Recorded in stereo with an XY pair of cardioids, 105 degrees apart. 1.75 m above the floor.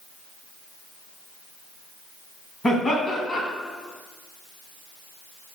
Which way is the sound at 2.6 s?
40° left.